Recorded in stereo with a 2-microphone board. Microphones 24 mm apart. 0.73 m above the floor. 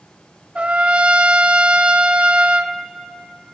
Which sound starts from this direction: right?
A trumpet, at 0.6 s.